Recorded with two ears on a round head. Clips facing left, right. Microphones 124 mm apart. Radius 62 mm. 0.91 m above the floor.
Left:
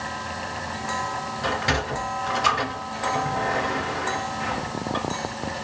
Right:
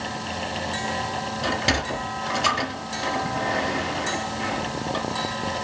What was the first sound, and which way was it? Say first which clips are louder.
A sliding door: even; 25° right (ahead or behind).